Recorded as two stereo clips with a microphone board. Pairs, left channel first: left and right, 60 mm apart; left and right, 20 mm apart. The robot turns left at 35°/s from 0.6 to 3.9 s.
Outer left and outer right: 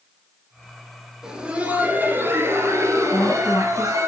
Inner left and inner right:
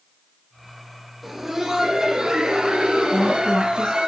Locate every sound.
1.2 s laughter: 10° right, 2.5 m; by 4.1 s 105° right, 2.5 m
3.1 s a woman speaking: 45° left (ahead or behind), 1.7 m; by 4.0 s 55° left (ahead or behind), 1.7 m